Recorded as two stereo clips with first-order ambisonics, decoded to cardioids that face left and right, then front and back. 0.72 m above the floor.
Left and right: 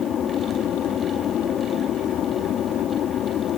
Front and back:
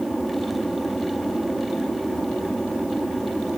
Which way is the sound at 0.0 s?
100° left.